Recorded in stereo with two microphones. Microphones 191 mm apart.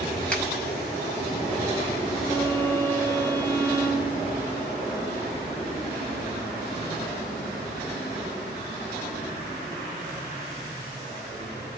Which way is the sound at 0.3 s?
10° left (ahead or behind).